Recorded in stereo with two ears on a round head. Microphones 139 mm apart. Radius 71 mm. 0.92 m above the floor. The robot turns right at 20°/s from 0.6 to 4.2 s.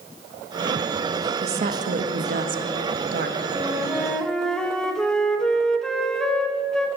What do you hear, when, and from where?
1.4 s a woman speaking: 130° right, 1.1 m; by 3.4 s 90° right, 1.1 m
3.5 s a flute: 10° right (ahead or behind), 0.9 m; by 6.9 s 5° left (ahead or behind), 0.9 m